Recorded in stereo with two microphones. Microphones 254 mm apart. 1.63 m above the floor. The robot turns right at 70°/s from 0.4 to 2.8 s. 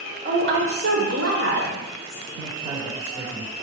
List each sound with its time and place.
0.2 s a woman speaking: 135° right, 0.8 m; by 2.2 s 5° right, 0.8 m
2.3 s a man speaking: 45° right, 1.4 m; by 3.5 s 10° right, 1.4 m